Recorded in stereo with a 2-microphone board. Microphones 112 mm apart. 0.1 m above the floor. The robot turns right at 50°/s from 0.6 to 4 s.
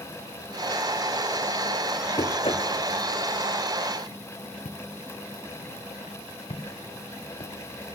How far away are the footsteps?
About 1.9 m.